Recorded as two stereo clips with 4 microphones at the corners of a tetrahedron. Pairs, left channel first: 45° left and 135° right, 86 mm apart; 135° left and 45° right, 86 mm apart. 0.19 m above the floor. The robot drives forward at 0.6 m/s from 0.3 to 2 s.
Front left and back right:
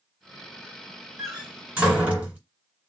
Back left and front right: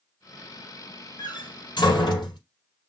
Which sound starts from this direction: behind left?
A door slam, at 1.2 s.